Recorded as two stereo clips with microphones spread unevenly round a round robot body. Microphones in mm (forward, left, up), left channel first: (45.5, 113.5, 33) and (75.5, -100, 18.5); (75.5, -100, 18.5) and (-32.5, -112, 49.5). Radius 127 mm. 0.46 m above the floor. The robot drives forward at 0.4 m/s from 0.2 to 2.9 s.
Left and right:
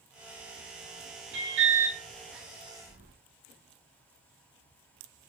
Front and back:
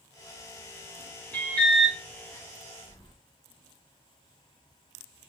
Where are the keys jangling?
40° right, 2.5 m.